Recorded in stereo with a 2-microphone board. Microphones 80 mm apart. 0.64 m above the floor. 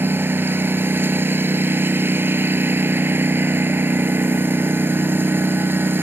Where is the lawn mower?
30° right (ahead or behind).